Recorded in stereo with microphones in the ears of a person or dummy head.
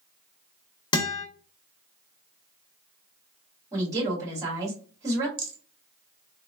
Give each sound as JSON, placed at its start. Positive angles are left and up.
{"t": 0.9, "sound": "a guitar", "side_deg": 20, "distance_m": 0.7}
{"t": 3.7, "sound": "a woman speaking", "side_deg": -15, "distance_m": 1.8}
{"t": 5.4, "sound": "a rattle", "side_deg": -25, "distance_m": 0.6}